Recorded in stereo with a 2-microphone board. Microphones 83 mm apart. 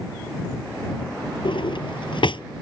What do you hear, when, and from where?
1.4 s a drawer: 70° left (ahead or behind)